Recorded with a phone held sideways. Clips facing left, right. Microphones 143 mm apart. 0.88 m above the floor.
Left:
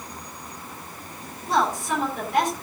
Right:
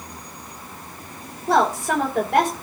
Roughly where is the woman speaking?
Right.